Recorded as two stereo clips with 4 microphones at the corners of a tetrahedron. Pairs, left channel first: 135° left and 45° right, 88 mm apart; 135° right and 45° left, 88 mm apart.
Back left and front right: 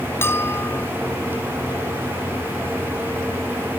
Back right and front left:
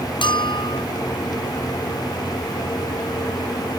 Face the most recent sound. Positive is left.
turn(degrees=-160)